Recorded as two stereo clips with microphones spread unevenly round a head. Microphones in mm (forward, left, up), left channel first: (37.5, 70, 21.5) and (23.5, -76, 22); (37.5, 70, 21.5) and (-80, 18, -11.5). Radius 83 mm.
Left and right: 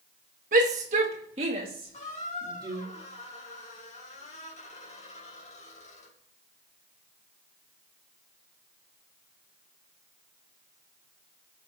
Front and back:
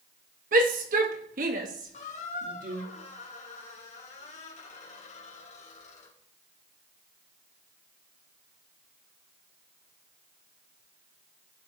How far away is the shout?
About 1.6 m.